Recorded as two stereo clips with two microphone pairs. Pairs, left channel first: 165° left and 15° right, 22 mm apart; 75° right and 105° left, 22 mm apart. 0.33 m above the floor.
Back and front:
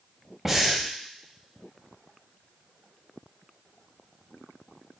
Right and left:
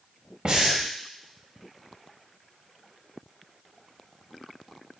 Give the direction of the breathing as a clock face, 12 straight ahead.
10 o'clock.